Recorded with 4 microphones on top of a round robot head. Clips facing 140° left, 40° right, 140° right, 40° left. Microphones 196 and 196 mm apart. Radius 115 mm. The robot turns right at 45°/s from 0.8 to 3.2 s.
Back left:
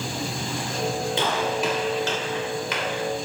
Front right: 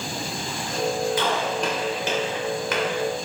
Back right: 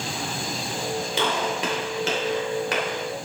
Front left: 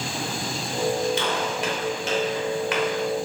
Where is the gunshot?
155° right, 3 m; by 3.0 s 70° right, 3 m.